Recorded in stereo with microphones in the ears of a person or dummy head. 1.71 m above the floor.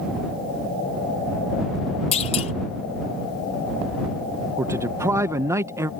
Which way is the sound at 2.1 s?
35° left (ahead or behind).